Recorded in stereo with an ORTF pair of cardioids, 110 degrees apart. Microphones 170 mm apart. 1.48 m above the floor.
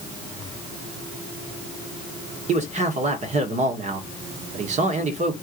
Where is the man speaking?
40° right, 1.6 m.